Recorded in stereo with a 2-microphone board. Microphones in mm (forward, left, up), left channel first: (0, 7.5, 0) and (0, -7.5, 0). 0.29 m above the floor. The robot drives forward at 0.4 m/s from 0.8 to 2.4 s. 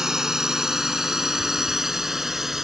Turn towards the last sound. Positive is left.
turn(degrees=-25)  # may be behind; listen again after turning